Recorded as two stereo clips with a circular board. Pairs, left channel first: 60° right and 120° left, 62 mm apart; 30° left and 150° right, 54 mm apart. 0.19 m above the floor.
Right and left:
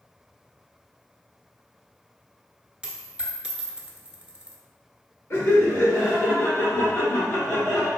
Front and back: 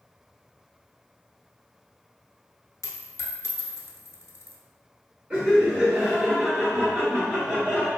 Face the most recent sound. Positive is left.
turn(degrees=-85)